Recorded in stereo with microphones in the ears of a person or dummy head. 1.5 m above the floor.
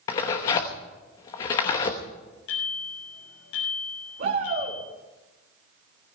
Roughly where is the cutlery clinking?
I don't hear cutlery clinking.